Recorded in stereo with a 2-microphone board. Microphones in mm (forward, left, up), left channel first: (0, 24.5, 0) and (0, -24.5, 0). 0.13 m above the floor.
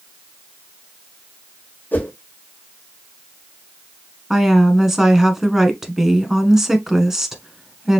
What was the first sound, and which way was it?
A whoosh, 40° left (ahead or behind).